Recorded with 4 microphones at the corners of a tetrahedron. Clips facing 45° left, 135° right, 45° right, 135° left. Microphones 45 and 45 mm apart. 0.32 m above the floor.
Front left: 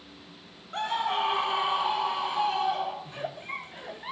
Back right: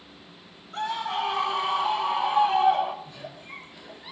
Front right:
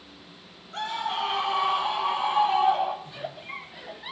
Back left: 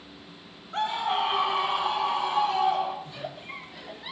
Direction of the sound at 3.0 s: 30° left.